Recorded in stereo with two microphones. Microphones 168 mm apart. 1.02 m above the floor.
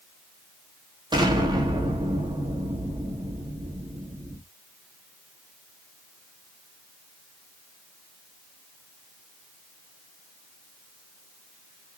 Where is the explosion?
25° right (ahead or behind), 1.5 m.